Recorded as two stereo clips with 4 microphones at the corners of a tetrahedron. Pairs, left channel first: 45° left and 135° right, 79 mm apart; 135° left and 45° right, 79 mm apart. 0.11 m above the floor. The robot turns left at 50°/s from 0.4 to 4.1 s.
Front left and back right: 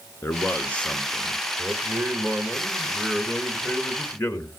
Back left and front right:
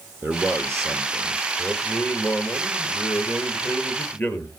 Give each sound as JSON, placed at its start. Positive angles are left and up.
{"t": 0.2, "sound": "a man speaking", "azimuth_deg": 0, "distance_m": 1.5}
{"t": 1.6, "sound": "a man speaking", "azimuth_deg": -140, "distance_m": 2.0}